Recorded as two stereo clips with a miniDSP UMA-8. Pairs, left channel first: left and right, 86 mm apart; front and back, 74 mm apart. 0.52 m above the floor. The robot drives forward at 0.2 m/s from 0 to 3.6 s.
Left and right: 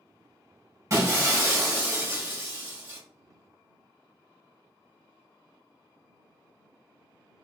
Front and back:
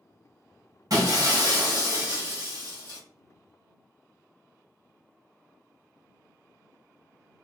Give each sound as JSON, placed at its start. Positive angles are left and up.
{"t": 0.9, "sound": "breaking glass", "azimuth_deg": -145, "distance_m": 0.9}